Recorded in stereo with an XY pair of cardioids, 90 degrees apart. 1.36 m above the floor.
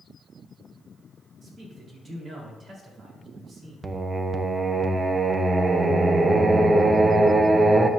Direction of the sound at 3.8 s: 30° right.